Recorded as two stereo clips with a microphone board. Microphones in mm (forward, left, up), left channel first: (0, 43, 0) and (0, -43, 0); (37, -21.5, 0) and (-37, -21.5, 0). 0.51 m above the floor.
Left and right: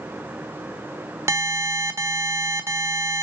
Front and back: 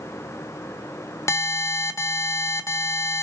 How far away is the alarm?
About 1.5 m.